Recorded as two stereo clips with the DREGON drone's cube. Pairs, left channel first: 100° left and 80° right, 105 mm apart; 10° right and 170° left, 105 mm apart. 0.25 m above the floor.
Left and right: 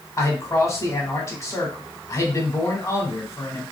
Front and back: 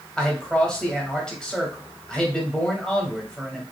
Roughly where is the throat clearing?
No throat clearing in this recording.